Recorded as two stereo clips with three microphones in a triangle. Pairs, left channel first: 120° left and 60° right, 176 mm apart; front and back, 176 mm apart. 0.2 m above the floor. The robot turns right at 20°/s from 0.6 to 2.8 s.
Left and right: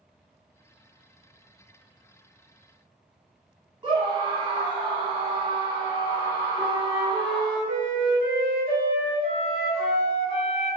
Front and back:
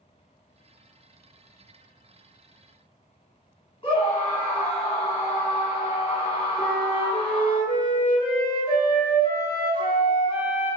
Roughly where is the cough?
I don't hear a cough.